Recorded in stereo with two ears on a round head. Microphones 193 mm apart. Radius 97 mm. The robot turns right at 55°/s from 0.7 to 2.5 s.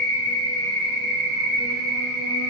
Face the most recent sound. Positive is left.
turn(degrees=-35)